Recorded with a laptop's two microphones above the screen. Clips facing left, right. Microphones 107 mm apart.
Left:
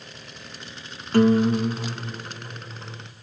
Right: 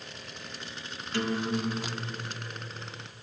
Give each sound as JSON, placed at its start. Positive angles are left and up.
{"t": 1.1, "sound": "a guitar", "side_deg": 45, "distance_m": 0.5}